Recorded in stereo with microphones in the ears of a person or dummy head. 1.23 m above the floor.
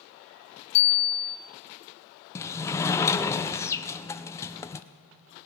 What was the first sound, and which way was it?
A bicycle bell, 55° left (ahead or behind).